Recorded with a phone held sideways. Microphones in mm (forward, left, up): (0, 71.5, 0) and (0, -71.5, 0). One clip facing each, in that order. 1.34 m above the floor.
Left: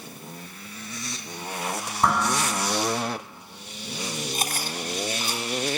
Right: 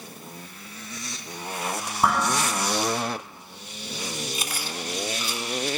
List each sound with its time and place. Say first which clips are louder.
2.0 s dishes clattering: even; 5° right (ahead or behind), 8 m
4.3 s chewing: left 2 dB; 50° left (ahead or behind), 3 m